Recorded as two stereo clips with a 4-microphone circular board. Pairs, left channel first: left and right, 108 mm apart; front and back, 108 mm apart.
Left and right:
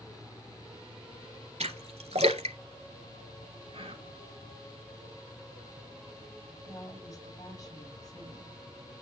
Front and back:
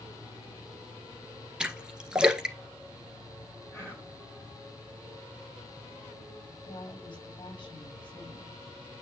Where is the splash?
100° right, 1.5 m.